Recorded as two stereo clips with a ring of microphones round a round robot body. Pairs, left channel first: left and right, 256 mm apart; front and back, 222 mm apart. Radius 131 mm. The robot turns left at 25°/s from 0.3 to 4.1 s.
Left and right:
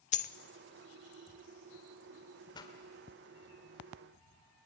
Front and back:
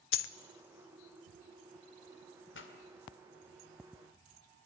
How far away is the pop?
About 2 m.